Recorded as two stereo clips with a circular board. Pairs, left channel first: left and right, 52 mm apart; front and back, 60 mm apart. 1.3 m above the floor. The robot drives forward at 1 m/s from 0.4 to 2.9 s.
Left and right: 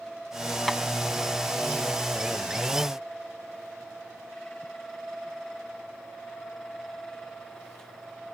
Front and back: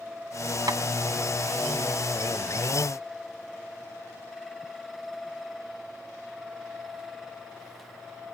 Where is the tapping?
175° right.